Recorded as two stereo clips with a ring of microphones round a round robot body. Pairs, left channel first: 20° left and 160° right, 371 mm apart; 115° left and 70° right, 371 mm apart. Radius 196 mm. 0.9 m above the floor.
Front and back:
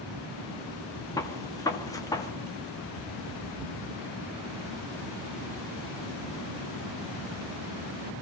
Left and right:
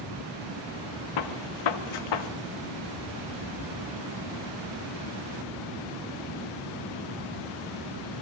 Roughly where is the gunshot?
Left.